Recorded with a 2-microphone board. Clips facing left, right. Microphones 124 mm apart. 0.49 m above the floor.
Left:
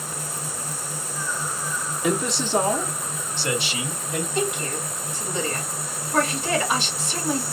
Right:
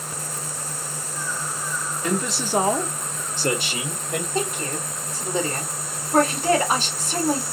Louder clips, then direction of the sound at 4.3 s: Left 2 dB; 40° right (ahead or behind).